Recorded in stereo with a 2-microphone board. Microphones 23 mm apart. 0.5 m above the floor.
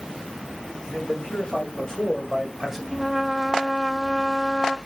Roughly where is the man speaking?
Left.